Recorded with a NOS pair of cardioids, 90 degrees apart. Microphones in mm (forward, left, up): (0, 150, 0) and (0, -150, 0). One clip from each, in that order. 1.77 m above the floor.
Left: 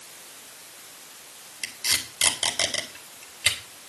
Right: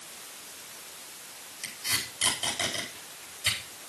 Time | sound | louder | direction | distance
1.6 | tape being pulled | left 5 dB | 70° left | 4.5 m